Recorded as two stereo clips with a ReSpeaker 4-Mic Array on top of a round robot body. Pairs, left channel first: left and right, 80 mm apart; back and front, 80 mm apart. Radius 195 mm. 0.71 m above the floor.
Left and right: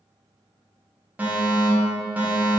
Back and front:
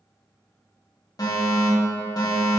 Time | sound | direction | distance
1.2 | a fire alarm | 155° right | 2.5 m